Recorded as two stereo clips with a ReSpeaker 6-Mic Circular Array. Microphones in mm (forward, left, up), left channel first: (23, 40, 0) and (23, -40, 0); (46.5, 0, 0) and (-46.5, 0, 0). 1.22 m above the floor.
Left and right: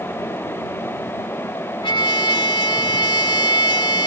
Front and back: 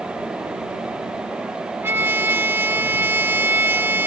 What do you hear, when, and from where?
1.8 s a trumpet: 115° left